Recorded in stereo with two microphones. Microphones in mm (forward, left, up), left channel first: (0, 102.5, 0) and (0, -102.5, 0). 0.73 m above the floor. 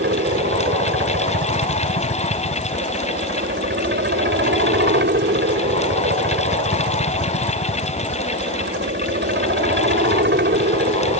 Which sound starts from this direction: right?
A helicopter, at 0.0 s.